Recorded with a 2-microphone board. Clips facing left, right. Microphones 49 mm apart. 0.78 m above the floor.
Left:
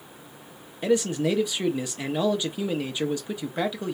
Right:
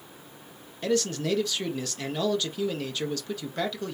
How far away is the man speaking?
About 0.5 m.